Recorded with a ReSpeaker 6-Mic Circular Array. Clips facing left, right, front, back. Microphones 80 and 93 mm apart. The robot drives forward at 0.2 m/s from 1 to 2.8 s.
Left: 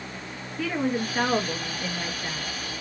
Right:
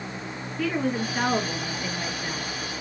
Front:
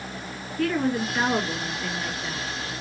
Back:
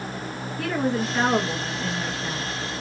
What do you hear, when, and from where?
0.6 s a woman speaking: 165° left, 1.5 m; by 2.5 s 170° left, 1.6 m